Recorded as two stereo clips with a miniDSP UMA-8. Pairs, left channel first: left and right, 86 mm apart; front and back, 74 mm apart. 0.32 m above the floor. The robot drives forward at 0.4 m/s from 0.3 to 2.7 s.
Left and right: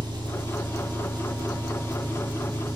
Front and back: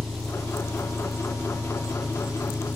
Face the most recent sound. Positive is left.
turn(degrees=-100)